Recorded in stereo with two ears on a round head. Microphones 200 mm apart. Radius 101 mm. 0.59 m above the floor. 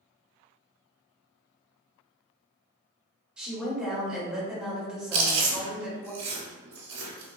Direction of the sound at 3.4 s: 5° right (ahead or behind).